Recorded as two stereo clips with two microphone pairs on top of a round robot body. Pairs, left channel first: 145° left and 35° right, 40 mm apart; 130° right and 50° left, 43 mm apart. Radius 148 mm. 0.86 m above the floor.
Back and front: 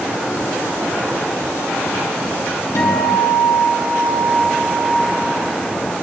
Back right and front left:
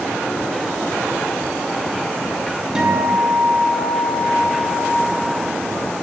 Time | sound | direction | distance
2.8 | a guitar | 130° left | 3 m